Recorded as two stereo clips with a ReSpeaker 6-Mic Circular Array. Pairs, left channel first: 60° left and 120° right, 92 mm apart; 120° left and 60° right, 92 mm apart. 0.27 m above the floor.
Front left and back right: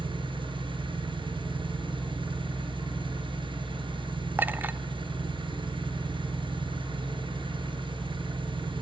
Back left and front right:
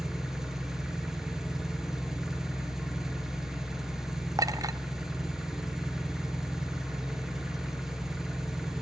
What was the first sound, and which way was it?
An engine running, 145° right.